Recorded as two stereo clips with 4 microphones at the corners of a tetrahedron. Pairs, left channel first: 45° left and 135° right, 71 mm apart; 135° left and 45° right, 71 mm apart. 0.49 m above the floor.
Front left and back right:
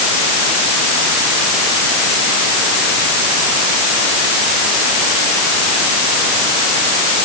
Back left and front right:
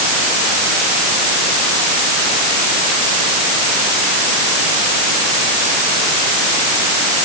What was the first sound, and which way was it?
Only background noise.